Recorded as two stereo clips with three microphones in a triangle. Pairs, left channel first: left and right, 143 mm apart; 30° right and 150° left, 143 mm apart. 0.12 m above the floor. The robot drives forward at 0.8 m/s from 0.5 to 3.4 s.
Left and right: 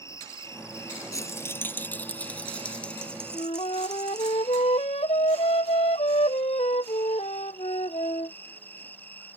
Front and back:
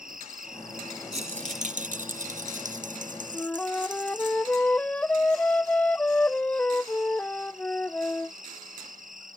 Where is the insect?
160° left; by 9.4 s 165° left.